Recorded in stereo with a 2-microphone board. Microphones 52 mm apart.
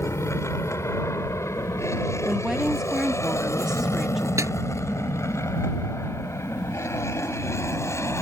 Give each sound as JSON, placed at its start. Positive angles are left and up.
{"t": 0.0, "sound": "an aircraft", "side_deg": 65}
{"t": 2.2, "sound": "a woman speaking", "side_deg": -10}
{"t": 4.4, "sound": "a snare drum", "side_deg": -80}